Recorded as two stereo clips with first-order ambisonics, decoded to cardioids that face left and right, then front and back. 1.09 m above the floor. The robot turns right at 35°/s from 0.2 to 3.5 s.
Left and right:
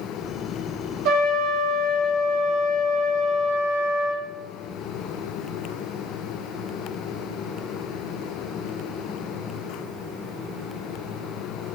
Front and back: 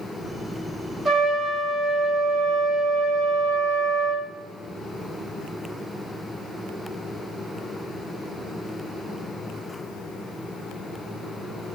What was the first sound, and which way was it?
A trumpet, 90° right.